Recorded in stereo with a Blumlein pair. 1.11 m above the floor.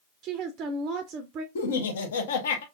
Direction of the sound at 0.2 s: 35° right.